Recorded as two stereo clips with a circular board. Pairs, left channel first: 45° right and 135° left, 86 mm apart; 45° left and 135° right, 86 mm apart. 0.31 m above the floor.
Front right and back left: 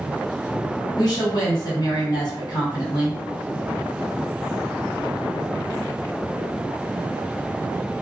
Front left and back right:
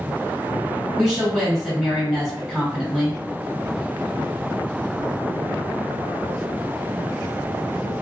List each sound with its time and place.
1.0 s a woman speaking: 60° right, 1.7 m